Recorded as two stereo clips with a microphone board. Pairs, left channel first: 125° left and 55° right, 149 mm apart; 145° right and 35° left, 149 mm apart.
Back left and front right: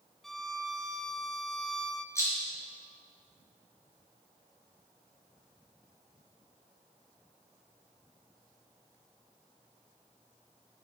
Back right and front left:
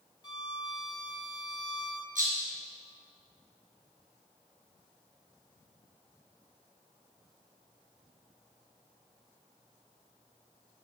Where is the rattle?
55° left, 3.5 m.